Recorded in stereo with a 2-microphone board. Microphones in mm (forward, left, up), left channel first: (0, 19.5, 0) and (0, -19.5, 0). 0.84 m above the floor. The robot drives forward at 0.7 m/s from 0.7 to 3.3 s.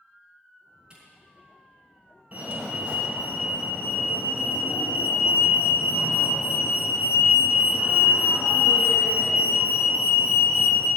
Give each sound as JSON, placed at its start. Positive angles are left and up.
{"t": 0.9, "sound": "a camera shutter", "side_deg": -20, "distance_m": 4.5}
{"t": 2.3, "sound": "a fire alarm", "side_deg": -40, "distance_m": 1.7}